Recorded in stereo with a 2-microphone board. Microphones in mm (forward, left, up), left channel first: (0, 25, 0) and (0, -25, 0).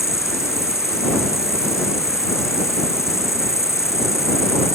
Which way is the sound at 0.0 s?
80° left.